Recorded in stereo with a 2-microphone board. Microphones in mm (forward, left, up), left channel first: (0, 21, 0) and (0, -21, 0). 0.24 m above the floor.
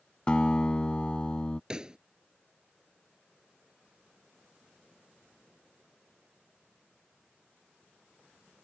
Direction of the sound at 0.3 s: 25° left (ahead or behind).